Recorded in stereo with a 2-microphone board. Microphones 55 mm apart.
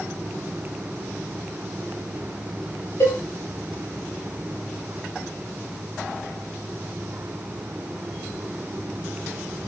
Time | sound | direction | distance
3.0 | a cowbell | 70° left (ahead or behind) | 9.5 m